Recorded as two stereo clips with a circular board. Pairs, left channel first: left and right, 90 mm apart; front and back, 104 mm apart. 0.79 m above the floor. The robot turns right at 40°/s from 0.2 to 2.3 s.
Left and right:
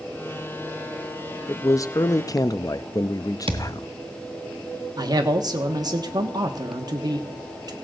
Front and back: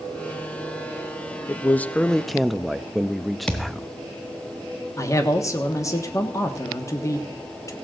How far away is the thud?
About 1.3 m.